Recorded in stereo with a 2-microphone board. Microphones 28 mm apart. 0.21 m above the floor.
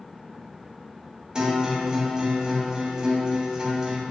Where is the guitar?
25° right (ahead or behind), 0.5 m.